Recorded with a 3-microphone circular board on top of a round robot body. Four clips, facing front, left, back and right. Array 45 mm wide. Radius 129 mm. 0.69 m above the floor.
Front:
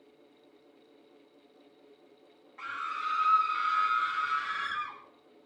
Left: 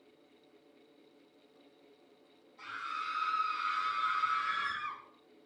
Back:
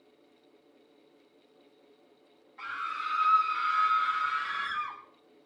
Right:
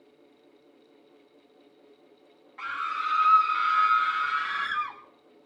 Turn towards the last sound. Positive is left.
turn(degrees=-90)